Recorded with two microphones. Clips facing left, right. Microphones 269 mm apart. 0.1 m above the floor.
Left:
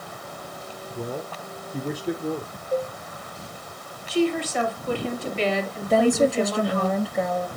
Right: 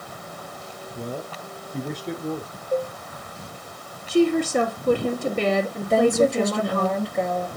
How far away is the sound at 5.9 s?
About 1.8 m.